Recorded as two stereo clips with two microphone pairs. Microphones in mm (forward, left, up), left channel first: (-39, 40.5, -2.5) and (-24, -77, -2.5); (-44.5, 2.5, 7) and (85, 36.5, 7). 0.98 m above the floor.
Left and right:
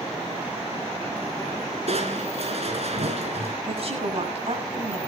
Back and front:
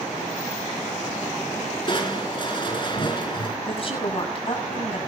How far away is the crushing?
About 4 m.